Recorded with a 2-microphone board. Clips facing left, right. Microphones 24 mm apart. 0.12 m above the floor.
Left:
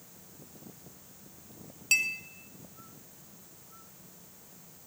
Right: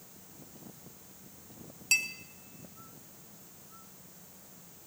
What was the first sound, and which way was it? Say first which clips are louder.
A clink: left 2 dB; 5° left (ahead or behind).